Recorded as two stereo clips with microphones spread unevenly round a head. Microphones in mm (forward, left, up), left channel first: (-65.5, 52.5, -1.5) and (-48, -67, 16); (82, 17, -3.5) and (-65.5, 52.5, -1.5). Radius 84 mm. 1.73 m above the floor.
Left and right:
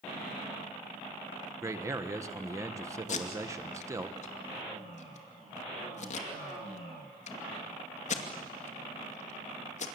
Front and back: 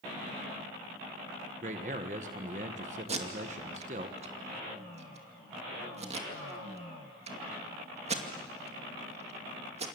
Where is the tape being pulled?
120° left, 2.5 m.